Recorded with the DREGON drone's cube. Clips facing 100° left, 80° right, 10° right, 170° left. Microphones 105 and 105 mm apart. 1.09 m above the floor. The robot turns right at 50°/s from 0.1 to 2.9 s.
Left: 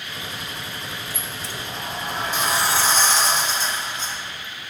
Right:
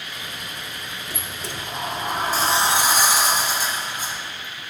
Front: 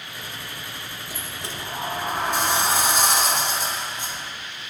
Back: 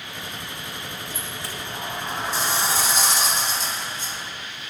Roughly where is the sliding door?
Right.